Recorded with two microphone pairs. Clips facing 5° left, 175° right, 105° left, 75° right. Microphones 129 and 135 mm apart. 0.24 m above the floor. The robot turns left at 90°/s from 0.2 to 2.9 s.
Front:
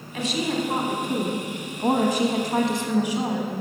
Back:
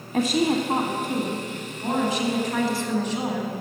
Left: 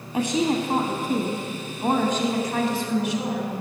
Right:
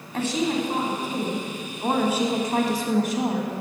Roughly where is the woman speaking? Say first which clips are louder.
Back 4 dB, left 2 dB; behind.